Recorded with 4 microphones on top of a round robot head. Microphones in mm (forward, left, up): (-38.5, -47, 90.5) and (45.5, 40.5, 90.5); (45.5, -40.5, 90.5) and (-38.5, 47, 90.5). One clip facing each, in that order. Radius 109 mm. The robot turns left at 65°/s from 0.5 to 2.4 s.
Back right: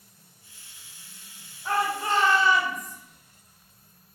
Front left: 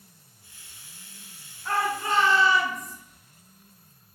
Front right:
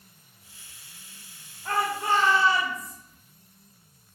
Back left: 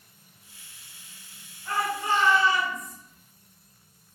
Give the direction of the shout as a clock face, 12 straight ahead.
2 o'clock.